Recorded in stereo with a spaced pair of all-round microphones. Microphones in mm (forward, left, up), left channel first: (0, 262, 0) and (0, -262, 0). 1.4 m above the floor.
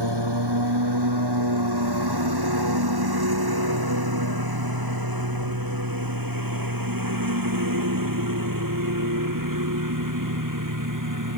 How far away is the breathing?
I don't hear breathing.